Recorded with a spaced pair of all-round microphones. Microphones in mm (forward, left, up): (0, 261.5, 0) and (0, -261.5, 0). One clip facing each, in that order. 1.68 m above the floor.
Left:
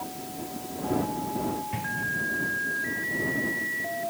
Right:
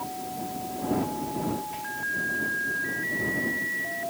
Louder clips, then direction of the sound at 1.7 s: Left 3 dB; 85° left.